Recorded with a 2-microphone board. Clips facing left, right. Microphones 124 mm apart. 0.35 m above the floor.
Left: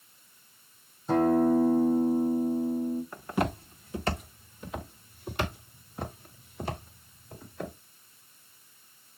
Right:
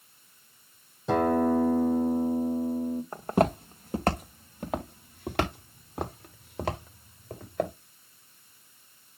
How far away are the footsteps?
About 1.7 m.